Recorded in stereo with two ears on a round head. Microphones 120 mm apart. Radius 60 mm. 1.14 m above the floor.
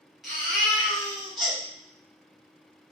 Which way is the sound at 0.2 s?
Centre (ahead or behind).